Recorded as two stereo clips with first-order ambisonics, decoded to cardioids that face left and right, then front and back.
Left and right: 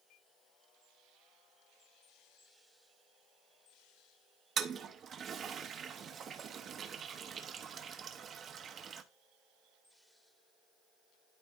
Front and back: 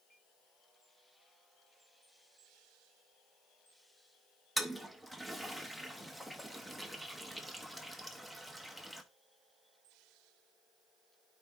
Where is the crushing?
I don't hear crushing.